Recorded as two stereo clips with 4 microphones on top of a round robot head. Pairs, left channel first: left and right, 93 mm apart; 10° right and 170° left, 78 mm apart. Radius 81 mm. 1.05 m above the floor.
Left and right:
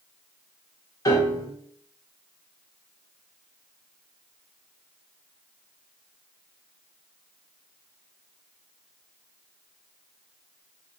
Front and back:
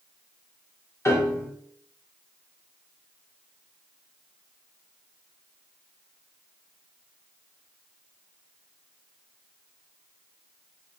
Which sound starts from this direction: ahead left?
A piano, at 1.1 s.